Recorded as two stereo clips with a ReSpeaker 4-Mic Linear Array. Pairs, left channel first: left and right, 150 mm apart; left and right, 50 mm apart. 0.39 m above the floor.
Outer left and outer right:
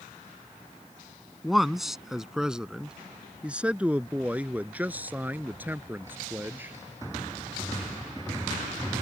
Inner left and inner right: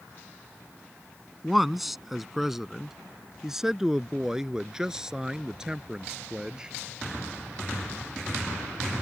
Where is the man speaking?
Centre (ahead or behind); by 6.7 s 15° right (ahead or behind).